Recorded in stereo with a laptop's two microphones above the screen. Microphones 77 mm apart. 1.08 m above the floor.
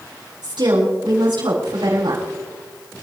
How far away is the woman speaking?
About 7.5 m.